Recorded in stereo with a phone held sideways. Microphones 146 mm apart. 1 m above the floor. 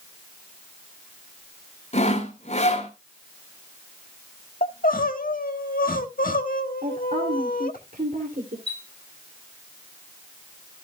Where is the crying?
75° left (ahead or behind), 1.3 m.